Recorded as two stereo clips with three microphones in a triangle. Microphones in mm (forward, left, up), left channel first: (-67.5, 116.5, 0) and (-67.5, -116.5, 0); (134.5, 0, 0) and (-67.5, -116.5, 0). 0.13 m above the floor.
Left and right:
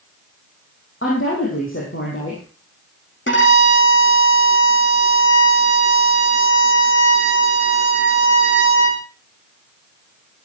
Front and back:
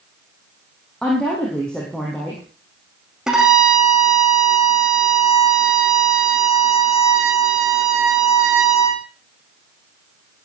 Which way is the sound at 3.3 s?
120° left.